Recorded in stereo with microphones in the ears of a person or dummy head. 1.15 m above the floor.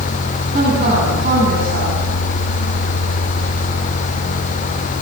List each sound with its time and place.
0.5 s a woman speaking: 45° right (ahead or behind), 9.5 m